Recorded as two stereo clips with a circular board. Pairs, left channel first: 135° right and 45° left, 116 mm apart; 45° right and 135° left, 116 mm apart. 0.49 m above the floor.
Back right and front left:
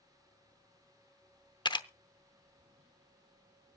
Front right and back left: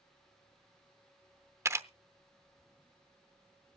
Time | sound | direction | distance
1.6 | a camera shutter | 165° right | 0.7 m